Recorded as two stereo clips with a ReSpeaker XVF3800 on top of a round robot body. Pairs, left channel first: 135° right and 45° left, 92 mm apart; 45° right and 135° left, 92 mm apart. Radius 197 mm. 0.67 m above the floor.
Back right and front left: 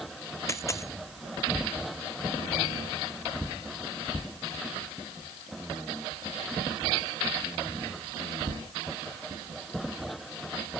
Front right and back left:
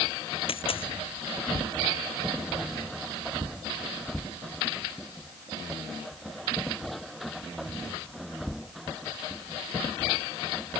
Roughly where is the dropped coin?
Right.